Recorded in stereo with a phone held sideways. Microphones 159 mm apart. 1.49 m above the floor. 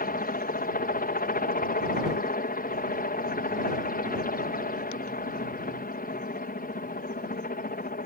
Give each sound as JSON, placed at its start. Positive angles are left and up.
{"t": 0.0, "sound": "a helicopter", "side_deg": 60}